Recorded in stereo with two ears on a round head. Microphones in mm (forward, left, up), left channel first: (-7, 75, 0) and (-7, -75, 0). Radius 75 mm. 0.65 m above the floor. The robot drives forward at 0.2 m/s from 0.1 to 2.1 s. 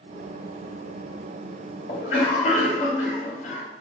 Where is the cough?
45° left (ahead or behind), 1.0 m.